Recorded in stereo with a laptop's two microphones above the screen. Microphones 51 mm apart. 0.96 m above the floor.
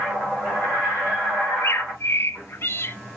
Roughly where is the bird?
Left.